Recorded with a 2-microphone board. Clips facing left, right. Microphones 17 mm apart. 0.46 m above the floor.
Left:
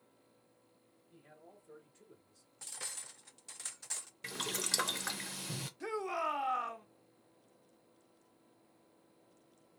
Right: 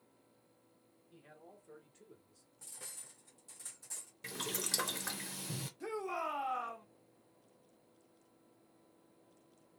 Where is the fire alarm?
I don't hear a fire alarm.